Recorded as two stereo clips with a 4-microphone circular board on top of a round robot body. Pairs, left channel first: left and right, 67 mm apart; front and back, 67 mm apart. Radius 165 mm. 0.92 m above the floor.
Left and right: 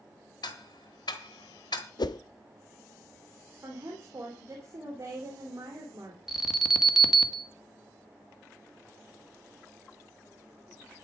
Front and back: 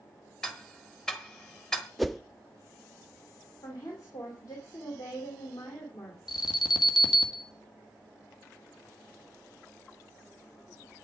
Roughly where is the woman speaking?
Ahead right.